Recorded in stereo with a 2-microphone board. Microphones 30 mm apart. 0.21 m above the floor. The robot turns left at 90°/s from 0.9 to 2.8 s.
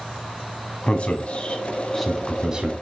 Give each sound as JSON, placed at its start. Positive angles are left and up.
{"t": 0.9, "sound": "a man speaking", "side_deg": 40, "distance_m": 1.3}